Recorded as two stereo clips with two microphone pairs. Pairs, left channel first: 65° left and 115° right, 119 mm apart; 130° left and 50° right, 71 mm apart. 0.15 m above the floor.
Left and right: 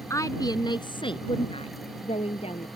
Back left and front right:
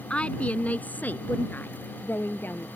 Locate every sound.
0.1 s a woman speaking: 80° left; by 2.8 s 75° left